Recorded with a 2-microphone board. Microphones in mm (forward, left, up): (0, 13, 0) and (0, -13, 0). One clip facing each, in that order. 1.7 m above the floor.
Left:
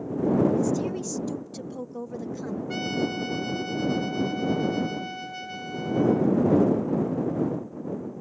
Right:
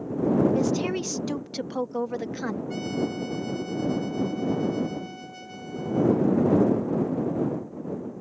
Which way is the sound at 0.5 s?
65° right (ahead or behind).